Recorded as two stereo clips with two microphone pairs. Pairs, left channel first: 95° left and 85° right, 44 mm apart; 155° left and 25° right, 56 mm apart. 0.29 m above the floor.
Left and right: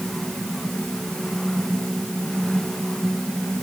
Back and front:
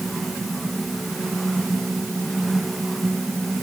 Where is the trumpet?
I don't hear a trumpet.